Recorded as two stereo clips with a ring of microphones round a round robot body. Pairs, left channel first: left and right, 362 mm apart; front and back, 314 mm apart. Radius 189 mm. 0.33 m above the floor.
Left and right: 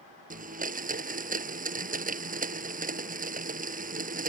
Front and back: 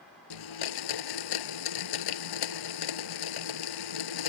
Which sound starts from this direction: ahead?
A blender, at 0.3 s.